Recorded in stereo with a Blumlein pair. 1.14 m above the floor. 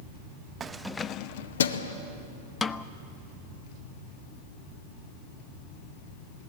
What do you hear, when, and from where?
0.6 s keys jangling: 20° right, 0.7 m; by 1.9 s 75° left, 1.2 m
2.6 s a snare drum: 15° left, 0.6 m